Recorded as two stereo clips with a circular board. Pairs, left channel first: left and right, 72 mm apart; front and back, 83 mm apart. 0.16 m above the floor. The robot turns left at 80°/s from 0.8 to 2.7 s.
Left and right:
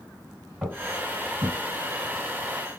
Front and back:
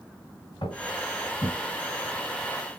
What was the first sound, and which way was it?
Footsteps, 5° right.